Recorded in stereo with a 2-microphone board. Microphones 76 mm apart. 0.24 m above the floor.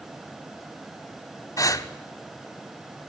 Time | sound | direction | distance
1.6 | breathing | 50° left (ahead or behind) | 0.5 m